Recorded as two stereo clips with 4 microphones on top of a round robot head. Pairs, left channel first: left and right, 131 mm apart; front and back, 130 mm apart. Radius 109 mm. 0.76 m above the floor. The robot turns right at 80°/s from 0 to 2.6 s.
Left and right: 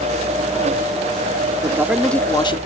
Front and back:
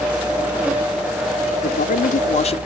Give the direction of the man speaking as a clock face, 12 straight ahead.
1 o'clock.